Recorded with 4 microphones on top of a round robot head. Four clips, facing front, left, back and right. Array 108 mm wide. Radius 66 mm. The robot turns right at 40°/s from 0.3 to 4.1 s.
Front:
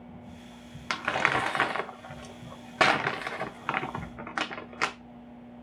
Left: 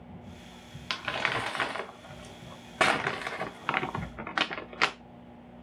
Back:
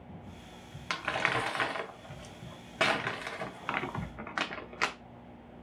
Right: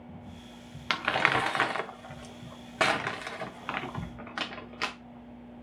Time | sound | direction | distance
0.9 | crumpling | 60° right | 0.6 m